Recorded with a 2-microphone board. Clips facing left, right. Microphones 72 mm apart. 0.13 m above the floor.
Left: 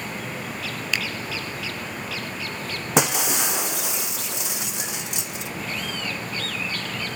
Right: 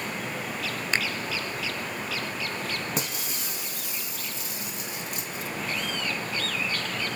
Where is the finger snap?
35° right (ahead or behind), 1.0 m.